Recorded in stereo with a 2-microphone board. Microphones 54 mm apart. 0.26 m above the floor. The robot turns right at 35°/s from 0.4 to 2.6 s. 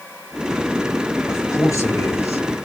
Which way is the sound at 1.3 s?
70° left.